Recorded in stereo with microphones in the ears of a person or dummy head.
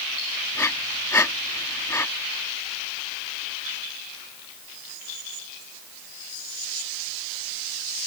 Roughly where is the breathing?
Centre.